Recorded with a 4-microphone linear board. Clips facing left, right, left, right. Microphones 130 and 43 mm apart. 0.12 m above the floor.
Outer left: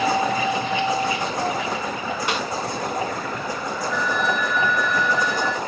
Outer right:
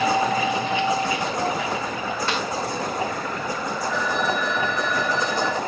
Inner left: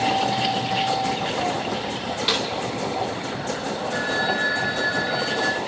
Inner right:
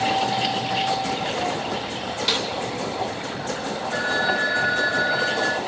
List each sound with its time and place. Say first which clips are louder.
2.3 s a snare drum: outer left 2 dB, inner left 1 dB; 15° left (ahead or behind), 5 m
3.9 s a phone ringing: outer left 1 dB, inner right 2 dB; 5° left (ahead or behind), 4.5 m